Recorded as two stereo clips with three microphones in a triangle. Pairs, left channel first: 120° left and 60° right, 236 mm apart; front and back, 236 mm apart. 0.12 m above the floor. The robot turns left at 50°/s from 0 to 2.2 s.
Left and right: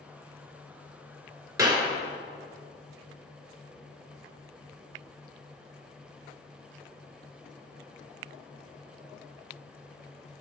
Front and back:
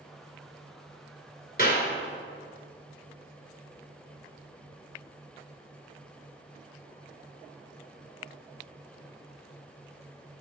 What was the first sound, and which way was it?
A clap, 5° left.